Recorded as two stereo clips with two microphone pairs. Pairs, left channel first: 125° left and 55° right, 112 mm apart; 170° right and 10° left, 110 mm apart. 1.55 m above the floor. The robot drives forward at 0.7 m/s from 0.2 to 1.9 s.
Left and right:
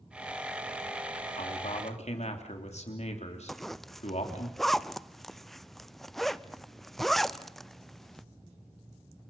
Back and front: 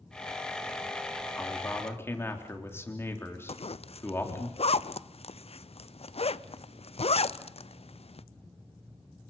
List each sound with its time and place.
1.4 s a man speaking: 115° left, 3 m; by 4.5 s 120° left, 3.5 m
3.5 s a zipper: 150° right, 0.6 m